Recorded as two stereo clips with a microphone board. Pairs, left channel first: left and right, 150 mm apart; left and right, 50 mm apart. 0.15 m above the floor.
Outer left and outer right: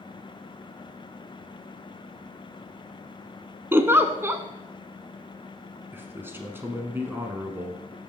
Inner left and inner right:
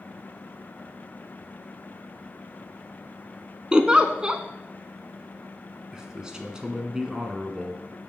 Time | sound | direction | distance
3.7 | a giggle | 15° right (ahead or behind) | 0.6 m
5.9 | a man speaking | 15° right (ahead or behind) | 1.1 m